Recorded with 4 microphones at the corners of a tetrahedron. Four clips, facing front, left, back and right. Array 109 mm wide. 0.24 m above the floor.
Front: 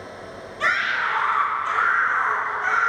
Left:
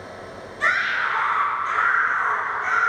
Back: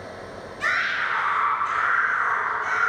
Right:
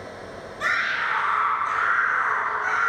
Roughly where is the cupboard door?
I don't hear a cupboard door.